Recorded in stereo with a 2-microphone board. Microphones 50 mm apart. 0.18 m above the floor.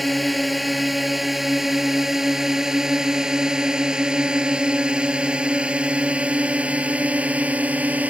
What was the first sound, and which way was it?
A drone, centre (ahead or behind).